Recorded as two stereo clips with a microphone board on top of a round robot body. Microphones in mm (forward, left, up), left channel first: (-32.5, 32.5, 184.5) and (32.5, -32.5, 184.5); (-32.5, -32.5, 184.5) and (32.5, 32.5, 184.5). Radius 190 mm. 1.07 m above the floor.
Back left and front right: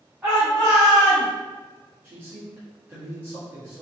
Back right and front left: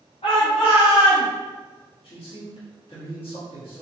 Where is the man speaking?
115° right, 2.0 m.